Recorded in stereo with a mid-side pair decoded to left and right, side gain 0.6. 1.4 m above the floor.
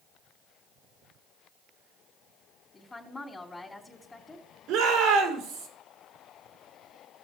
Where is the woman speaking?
20° left, 3 m.